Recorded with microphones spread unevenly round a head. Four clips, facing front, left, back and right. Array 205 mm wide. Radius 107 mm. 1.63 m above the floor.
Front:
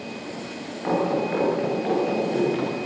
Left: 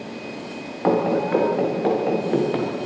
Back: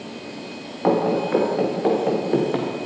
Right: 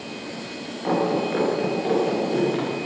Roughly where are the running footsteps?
Behind left.